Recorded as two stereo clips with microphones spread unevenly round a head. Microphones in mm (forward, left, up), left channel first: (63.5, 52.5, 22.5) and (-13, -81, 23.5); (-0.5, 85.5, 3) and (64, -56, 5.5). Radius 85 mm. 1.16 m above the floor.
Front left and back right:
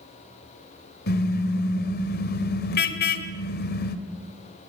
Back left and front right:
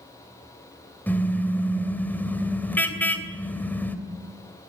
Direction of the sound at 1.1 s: 35° left.